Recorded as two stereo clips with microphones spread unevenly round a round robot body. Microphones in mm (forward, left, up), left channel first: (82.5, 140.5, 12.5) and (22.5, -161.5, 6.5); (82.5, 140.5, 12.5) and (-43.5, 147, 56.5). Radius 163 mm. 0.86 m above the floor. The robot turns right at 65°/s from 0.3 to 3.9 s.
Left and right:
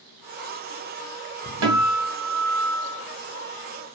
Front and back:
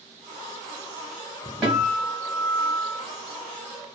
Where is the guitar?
80° right, 1.6 m; by 3.0 s 5° left, 1.6 m.